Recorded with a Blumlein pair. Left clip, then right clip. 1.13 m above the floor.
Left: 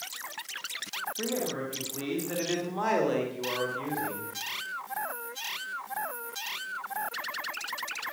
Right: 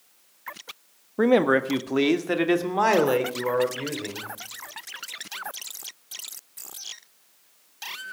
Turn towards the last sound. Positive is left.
turn(degrees=-70)